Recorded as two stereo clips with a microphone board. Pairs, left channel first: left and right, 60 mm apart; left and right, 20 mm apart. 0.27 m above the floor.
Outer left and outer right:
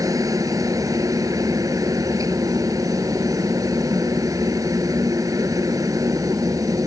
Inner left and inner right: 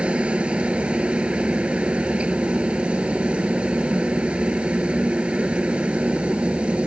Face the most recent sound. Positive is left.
turn(degrees=-70)  # may be behind; listen again after turning